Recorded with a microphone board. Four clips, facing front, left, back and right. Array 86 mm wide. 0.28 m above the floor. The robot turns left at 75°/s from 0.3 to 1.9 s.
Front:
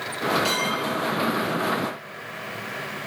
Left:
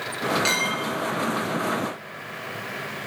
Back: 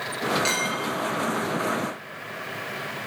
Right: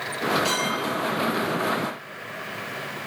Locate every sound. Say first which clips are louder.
0.5 s a clink: even, front 2 dB; 115° left, 3.5 m; by 0.8 s 90° left, 3.5 m